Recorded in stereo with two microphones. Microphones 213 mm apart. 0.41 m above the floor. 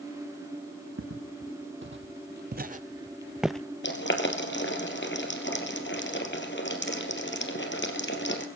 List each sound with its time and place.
1.0 s footsteps: 75° right (ahead or behind), 1.3 m; by 3.6 s 5° left (ahead or behind), 0.6 m
3.8 s boiling: 60° left (ahead or behind), 2.5 m